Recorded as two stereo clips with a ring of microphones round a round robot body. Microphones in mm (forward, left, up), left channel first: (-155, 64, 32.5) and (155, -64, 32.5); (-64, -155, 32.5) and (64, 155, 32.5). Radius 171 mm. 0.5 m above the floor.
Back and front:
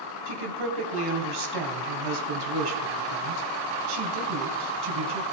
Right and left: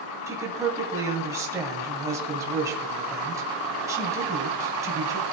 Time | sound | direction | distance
0.3 | a woman speaking | 15° right | 3 m